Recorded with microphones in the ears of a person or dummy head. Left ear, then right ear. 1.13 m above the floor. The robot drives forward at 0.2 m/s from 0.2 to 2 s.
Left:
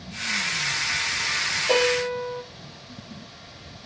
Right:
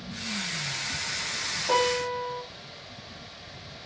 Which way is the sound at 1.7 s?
45° right (ahead or behind).